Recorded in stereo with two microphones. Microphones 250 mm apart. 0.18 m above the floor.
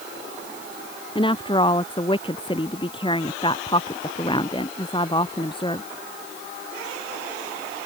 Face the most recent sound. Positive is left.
turn(degrees=20)  # may be behind; listen again after turning